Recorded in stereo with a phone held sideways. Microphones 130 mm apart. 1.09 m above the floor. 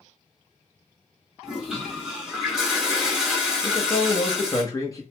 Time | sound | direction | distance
1.4 | a toilet flushing | 5° right (ahead or behind) | 1.1 m
3.6 | a man speaking | 25° left (ahead or behind) | 0.9 m